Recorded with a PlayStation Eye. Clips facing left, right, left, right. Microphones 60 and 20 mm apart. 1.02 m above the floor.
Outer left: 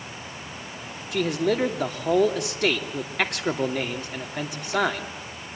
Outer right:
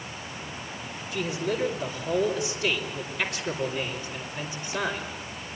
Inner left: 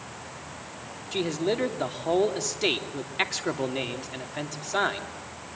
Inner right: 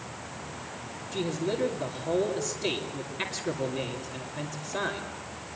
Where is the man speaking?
65° left (ahead or behind), 3 m.